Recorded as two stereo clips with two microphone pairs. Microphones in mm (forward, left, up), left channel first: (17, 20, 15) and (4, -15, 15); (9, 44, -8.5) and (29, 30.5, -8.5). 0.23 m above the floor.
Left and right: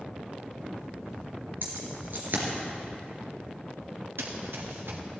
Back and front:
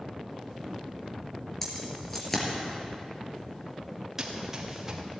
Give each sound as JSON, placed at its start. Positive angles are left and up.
{"t": 1.6, "sound": "keys jangling", "azimuth_deg": -135, "distance_m": 3.0}
{"t": 4.2, "sound": "running footsteps", "azimuth_deg": -105, "distance_m": 2.5}